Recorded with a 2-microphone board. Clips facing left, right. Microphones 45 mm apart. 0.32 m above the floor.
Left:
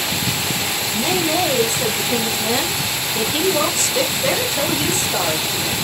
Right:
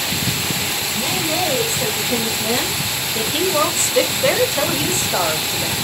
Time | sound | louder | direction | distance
0.9 | a woman speaking | left 3 dB | 25° left (ahead or behind) | 1.4 m